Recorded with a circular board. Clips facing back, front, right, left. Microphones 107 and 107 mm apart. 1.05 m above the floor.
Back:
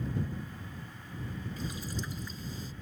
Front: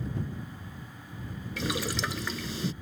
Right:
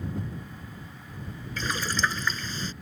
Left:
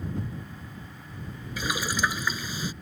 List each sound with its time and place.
1.6 s boiling: 10° left